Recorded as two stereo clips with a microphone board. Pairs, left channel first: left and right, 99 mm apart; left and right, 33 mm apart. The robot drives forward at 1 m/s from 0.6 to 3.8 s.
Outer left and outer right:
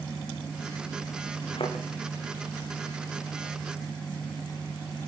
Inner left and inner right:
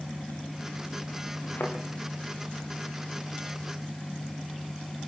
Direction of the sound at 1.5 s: 70° left (ahead or behind).